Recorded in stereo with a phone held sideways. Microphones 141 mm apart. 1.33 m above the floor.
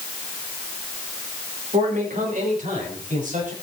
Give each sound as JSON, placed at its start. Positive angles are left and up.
{"t": 1.7, "sound": "a man speaking", "side_deg": -60, "distance_m": 4.0}